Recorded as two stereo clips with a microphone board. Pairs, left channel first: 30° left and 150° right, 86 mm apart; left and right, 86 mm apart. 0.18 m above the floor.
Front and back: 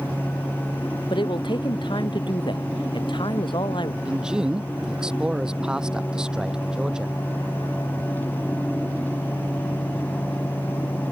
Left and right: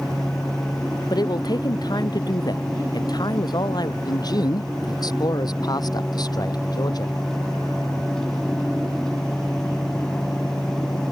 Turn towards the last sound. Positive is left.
turn(degrees=130)